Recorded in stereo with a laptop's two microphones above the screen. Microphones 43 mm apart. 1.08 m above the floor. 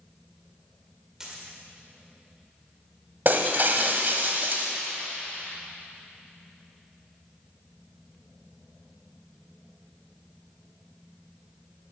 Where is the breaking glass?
50° right (ahead or behind), 1.2 m.